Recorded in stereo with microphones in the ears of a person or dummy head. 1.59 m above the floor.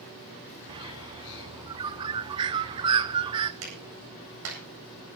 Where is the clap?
80° right, 9 m.